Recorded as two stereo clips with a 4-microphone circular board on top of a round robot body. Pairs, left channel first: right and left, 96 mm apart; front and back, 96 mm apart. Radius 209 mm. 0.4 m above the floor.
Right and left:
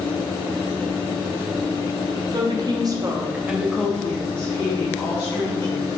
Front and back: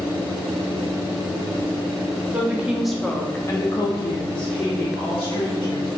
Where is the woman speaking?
110° left, 1.3 m; by 5.9 s 35° right, 2.5 m.